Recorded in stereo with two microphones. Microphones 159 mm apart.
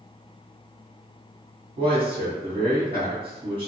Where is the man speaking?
35° right (ahead or behind), 1.2 m.